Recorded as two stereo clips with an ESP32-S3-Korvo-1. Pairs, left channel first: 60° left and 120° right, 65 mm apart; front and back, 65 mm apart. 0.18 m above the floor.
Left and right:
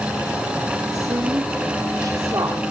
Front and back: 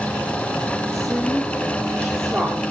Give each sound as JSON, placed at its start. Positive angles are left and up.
{"t": 0.9, "sound": "a woman speaking", "azimuth_deg": -90, "distance_m": 5.0}